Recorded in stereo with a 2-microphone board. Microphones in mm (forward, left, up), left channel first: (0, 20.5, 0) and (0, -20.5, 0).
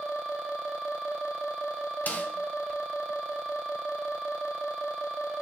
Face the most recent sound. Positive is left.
turn(degrees=45)  # may be behind; listen again after turning